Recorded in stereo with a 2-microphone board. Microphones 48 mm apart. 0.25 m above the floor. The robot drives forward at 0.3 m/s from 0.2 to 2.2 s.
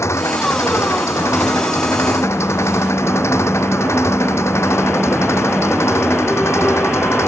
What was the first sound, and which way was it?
An engine running, 70° left (ahead or behind).